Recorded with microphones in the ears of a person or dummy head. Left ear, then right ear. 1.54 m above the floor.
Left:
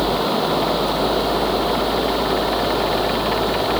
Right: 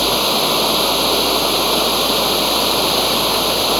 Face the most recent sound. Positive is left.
turn(degrees=-75)  # may be behind; listen again after turning